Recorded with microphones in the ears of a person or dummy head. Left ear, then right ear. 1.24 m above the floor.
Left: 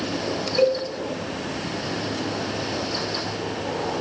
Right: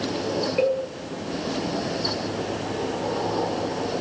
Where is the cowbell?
5° left (ahead or behind), 8.5 m.